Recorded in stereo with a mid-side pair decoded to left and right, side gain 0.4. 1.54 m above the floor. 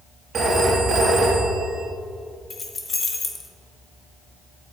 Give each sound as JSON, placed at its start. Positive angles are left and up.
{"t": 0.3, "sound": "a phone ringing", "azimuth_deg": -55, "distance_m": 1.8}
{"t": 2.5, "sound": "keys jangling", "azimuth_deg": 45, "distance_m": 1.4}